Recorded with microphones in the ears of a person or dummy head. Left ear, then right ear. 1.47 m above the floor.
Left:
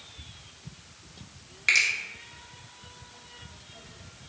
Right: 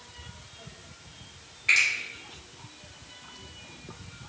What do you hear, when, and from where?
1.7 s a finger snap: 65° left (ahead or behind), 1.2 m